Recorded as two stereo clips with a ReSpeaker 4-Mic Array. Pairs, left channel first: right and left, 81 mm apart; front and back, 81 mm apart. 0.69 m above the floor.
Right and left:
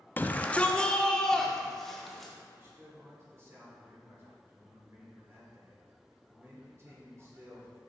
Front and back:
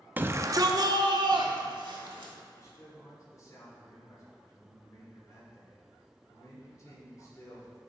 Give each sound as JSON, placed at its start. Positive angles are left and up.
{"t": 0.2, "sound": "a shout", "azimuth_deg": -130, "distance_m": 0.6}
{"t": 2.5, "sound": "a man speaking", "azimuth_deg": 40, "distance_m": 2.5}